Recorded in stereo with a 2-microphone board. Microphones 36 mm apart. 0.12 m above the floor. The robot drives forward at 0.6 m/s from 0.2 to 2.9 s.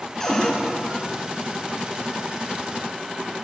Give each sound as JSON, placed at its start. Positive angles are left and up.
{"t": 0.2, "sound": "a cupboard door", "side_deg": 15, "distance_m": 1.0}